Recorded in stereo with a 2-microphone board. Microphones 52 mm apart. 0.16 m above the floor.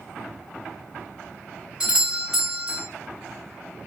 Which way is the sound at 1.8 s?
15° right (ahead or behind).